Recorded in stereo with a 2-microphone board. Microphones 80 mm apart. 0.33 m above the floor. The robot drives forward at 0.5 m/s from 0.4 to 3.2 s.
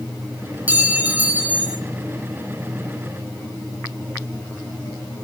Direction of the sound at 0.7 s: 20° right (ahead or behind).